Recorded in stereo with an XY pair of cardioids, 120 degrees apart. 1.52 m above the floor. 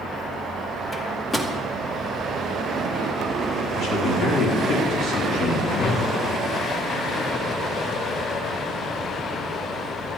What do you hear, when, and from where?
0.9 s a microwave: 10° left, 2 m
3.8 s a man speaking: 55° left, 5 m
5.7 s a whoosh: 50° left, 1.4 m